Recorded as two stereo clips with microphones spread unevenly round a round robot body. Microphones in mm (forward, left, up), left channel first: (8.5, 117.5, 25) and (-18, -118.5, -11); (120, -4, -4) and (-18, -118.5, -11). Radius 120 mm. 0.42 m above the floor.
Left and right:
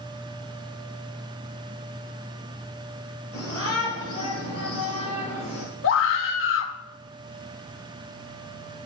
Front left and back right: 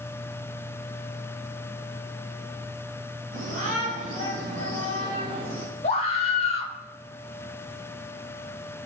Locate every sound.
3.3 s a shout: 160° left, 8 m; by 5.7 s 145° left, 8 m
5.8 s a scream: 90° left, 1.3 m